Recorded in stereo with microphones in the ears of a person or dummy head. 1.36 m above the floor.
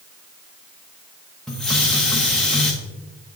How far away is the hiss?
About 0.7 m.